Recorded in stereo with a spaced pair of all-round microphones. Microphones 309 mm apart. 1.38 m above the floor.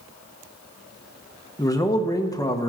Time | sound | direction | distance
1.6 | a man speaking | 10° left (ahead or behind) | 1.0 m